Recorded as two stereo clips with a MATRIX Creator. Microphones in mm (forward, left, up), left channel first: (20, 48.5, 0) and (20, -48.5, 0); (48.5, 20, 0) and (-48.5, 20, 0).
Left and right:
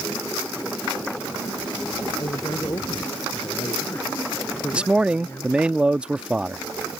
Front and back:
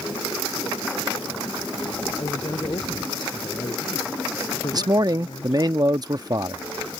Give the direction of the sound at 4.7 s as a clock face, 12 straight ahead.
5 o'clock.